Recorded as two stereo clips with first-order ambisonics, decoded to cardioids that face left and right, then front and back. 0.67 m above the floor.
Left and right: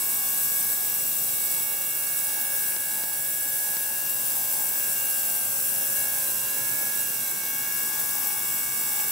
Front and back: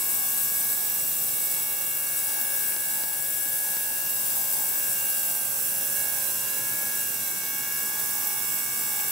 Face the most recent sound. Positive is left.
No sound to turn to.